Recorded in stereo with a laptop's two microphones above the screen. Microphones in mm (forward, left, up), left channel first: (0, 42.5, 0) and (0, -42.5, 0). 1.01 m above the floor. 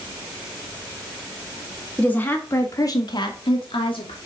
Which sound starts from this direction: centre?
A woman speaking, at 2.0 s.